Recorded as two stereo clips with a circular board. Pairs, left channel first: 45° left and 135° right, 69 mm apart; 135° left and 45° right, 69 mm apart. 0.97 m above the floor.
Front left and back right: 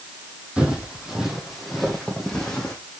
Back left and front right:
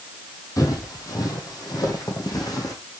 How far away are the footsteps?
About 2 m.